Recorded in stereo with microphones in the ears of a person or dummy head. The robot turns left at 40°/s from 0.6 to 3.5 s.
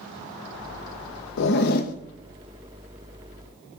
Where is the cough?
No cough in this recording.